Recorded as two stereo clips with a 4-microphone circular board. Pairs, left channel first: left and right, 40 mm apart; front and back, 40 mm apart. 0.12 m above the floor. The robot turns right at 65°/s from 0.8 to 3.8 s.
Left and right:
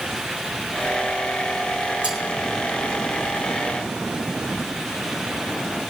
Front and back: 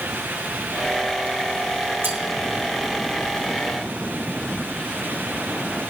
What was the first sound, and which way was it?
Cutlery clinking, 155° right.